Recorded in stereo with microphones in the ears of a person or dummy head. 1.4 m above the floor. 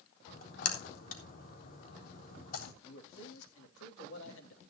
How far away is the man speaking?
About 3.5 m.